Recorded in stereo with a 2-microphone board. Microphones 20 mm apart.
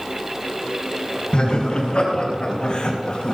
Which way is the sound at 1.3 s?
55° left (ahead or behind).